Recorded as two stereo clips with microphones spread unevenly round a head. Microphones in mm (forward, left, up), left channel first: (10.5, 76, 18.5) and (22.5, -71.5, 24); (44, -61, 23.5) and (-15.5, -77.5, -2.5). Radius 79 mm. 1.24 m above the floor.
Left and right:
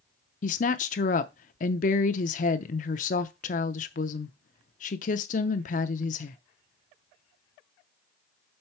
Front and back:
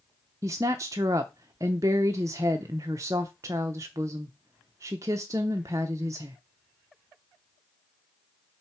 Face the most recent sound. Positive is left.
turn(degrees=135)